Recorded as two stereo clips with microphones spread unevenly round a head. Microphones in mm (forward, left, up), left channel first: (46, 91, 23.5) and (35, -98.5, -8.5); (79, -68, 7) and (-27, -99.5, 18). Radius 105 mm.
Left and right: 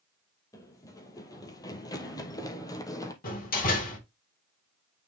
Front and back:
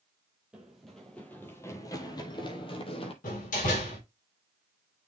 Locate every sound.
0.5 s running footsteps: 130° left, 1.4 m; by 3.1 s 30° left, 1.6 m
3.2 s a door slam: 45° left, 3 m